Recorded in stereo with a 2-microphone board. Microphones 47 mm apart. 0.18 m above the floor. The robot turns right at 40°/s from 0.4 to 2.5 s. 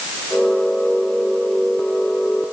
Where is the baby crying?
I don't hear a baby crying.